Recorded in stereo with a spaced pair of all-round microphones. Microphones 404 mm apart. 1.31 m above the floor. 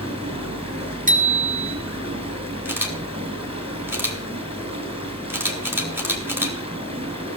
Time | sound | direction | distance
0.0 | running water | 15° right (ahead or behind) | 4.5 m
1.1 | a bicycle bell | 20° right (ahead or behind) | 2 m
2.6 | a camera shutter | 5° right (ahead or behind) | 2.5 m